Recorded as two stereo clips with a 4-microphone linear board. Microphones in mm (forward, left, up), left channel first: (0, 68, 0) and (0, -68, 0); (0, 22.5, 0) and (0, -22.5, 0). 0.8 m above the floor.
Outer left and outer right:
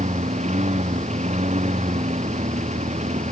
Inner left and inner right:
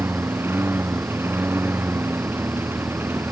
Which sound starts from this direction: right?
A lawn mower, at 0.0 s.